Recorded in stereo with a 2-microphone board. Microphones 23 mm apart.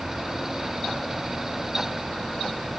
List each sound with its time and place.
Only background noise.